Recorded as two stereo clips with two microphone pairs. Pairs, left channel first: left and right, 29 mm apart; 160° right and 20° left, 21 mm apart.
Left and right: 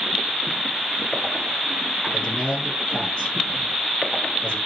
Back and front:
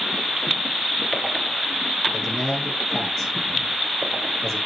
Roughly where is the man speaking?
Behind left.